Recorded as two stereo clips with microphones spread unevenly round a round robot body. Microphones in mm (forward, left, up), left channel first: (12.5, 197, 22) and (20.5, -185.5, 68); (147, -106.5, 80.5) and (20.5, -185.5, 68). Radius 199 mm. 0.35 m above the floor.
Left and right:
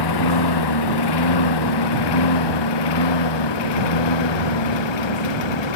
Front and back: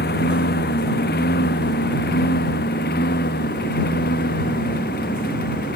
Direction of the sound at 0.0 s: 60° left.